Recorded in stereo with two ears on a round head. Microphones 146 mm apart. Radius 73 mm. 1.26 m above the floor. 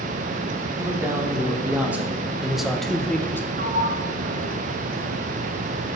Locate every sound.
0.8 s a man speaking: 20° right (ahead or behind), 2.5 m; by 3.5 s 15° left (ahead or behind), 1.1 m
3.6 s a sliding door: 55° right (ahead or behind), 1.7 m